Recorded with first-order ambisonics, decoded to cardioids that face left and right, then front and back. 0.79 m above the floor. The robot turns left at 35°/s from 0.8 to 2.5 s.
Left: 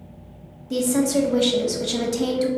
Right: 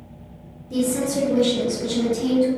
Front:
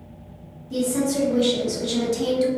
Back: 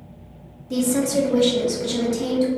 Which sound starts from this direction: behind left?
A woman speaking, at 0.7 s.